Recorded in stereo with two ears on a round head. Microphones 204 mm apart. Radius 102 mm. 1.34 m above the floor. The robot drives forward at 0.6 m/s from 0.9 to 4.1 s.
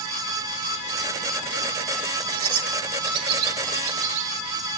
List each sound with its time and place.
2.3 s a bird: 65° right (ahead or behind), 1.2 m; by 4.4 s 60° right (ahead or behind), 1.3 m